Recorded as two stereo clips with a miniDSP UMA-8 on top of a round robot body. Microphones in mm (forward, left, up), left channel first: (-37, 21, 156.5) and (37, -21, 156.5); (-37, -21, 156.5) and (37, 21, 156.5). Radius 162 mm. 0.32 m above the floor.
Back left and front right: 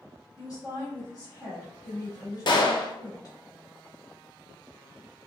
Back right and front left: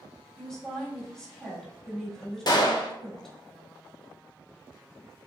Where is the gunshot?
175° left, 0.7 m.